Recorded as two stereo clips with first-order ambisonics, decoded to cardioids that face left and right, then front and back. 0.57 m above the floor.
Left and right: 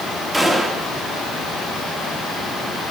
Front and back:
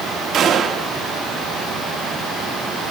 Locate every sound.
0.3 s a gunshot: 170° right, 1.0 m